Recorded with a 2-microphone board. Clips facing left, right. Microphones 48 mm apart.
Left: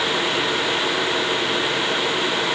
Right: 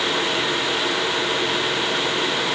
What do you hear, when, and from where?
Only background noise.